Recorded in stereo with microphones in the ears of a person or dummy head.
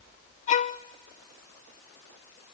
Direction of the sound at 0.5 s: 35° left (ahead or behind).